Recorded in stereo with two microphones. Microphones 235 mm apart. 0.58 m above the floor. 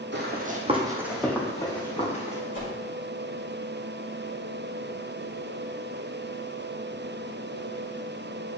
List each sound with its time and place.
0.1 s running footsteps: 50° right (ahead or behind), 1.0 m; by 2.4 s 30° left (ahead or behind), 1.7 m
2.5 s a whoosh: 55° left (ahead or behind), 1.5 m